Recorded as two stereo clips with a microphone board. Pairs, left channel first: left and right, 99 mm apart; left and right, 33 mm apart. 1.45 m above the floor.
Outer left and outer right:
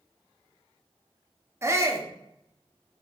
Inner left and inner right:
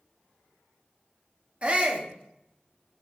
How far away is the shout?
About 0.8 m.